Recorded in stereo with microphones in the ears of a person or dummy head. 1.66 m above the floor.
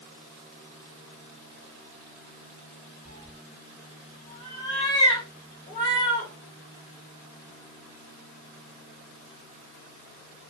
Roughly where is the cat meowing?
Left.